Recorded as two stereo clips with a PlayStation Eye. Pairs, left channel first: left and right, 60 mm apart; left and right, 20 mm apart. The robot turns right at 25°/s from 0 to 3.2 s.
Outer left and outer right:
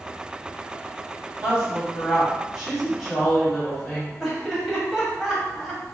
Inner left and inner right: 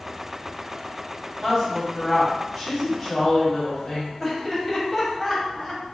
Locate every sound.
1.4 s a woman speaking: 20° right (ahead or behind), 1.4 m; by 4.1 s 5° left (ahead or behind), 1.4 m
4.2 s laughter: 5° right (ahead or behind), 1.3 m